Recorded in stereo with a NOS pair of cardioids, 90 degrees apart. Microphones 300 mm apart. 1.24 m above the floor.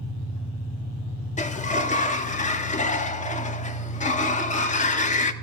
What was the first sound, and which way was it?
An engine running, 65° left.